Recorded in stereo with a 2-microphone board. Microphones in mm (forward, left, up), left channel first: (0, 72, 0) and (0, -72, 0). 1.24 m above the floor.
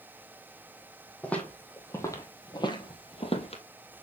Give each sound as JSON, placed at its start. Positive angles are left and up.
{"t": 1.2, "sound": "footsteps", "side_deg": 10, "distance_m": 2.0}